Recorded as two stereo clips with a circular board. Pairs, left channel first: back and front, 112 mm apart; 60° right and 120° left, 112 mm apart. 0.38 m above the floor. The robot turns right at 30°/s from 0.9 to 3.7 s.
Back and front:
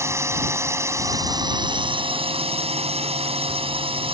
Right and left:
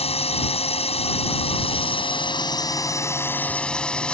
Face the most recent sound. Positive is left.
turn(degrees=20)